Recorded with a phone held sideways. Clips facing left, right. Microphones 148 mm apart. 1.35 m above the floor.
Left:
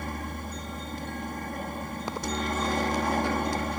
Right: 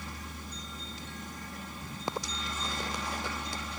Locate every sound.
0.0 s a helicopter: 55° left (ahead or behind)